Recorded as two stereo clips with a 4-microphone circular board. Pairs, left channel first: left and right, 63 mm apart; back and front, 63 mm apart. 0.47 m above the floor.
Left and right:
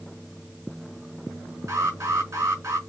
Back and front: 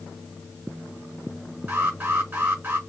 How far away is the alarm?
About 4.5 m.